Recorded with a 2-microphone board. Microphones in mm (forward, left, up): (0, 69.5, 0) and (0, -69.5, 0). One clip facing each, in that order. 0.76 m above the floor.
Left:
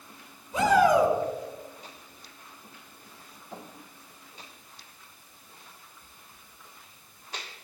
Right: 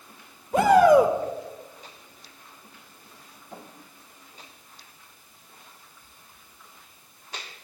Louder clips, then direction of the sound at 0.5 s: Right 5 dB; 60° right (ahead or behind).